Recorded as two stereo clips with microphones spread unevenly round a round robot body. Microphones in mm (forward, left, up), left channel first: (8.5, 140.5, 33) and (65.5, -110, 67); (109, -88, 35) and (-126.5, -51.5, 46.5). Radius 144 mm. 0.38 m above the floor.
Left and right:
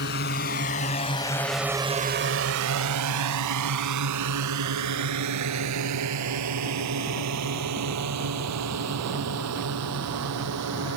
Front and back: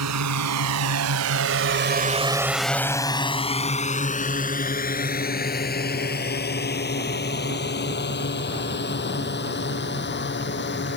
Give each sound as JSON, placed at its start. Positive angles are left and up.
{"t": 0.0, "sound": "a drone", "azimuth_deg": 150}